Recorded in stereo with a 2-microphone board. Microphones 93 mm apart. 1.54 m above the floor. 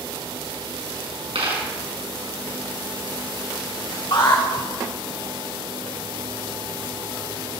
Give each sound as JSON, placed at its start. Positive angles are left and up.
{"t": 1.4, "sound": "a dropped coin", "side_deg": -80, "distance_m": 6.0}
{"t": 4.1, "sound": "an alarm", "side_deg": 55, "distance_m": 2.5}